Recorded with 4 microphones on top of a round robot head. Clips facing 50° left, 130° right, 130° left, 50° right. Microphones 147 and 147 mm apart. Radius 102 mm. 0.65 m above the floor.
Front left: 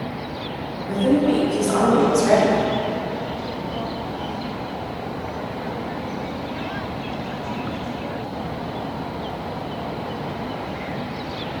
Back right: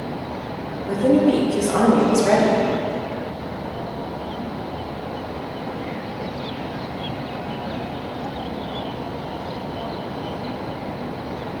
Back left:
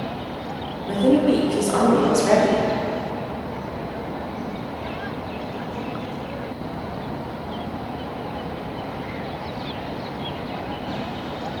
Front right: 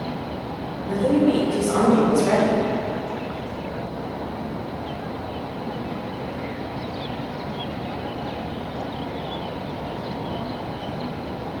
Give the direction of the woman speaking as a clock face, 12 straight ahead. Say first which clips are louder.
Back right 2 dB, back left 2 dB; 6 o'clock.